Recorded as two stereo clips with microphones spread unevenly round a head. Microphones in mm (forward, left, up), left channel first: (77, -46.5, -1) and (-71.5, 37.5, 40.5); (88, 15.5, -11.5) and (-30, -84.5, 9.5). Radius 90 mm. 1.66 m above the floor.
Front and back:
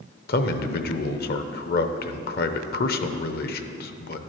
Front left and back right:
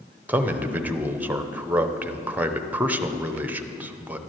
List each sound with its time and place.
0.3 s a man speaking: 65° right, 0.8 m